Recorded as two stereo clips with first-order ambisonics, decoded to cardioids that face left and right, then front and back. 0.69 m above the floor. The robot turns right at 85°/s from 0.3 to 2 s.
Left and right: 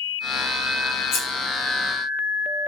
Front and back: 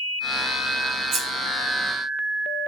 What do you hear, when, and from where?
1.1 s scissors: 135° left, 1.0 m; by 1.2 s 145° left, 1.0 m